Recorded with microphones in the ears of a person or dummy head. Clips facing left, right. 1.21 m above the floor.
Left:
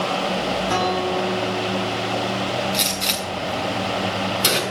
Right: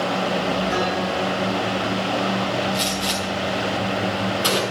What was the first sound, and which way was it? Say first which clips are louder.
A guitar: left 1 dB; 70° left (ahead or behind).